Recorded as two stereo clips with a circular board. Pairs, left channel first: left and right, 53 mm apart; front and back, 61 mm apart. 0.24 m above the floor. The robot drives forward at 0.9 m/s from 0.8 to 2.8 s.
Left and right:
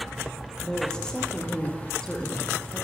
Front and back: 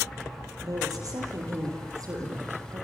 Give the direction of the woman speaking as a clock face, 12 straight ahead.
6 o'clock.